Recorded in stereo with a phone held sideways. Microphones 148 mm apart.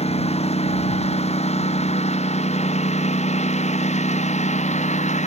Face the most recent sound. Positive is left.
turn(degrees=50)  # may be behind; listen again after turning